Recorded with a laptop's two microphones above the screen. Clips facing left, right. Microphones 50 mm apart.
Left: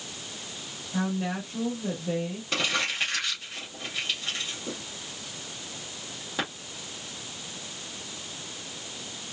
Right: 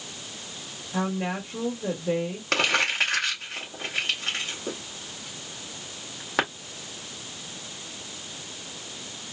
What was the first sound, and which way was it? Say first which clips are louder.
A woman speaking: right 1 dB; 75° right (ahead or behind).